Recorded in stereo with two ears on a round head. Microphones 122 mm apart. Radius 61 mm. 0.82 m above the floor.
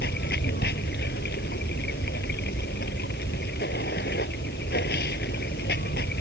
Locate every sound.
0.0 s running water: 80° left